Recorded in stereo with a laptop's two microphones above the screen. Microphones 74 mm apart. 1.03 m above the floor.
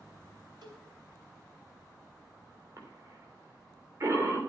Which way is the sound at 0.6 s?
85° right.